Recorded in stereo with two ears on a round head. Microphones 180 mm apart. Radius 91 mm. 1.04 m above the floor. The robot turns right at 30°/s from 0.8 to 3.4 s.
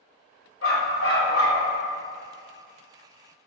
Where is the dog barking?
70° left (ahead or behind), 1.9 m; by 1.6 s 75° left (ahead or behind), 1.9 m.